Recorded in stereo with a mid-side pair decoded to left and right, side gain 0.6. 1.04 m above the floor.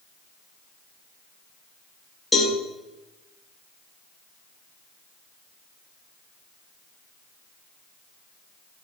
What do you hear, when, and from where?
2.3 s a cowbell: 5° left, 4.5 m